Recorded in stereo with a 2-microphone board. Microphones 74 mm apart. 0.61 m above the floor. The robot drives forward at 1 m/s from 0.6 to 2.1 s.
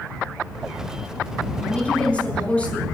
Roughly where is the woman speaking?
Centre.